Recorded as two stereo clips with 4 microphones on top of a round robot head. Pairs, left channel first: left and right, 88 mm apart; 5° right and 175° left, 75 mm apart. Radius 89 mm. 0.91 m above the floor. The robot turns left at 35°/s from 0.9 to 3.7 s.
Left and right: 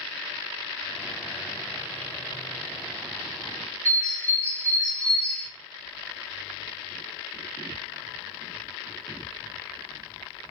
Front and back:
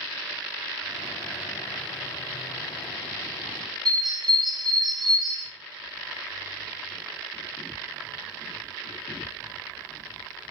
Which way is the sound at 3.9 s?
165° left.